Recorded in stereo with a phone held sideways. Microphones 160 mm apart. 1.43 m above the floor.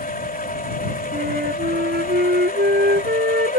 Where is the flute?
80° right.